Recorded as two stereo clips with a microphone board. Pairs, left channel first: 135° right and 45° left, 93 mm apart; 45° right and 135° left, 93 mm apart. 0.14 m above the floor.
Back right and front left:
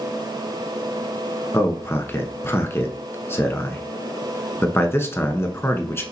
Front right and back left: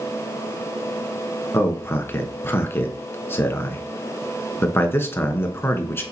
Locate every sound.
1.5 s a man speaking: 90° right, 1.3 m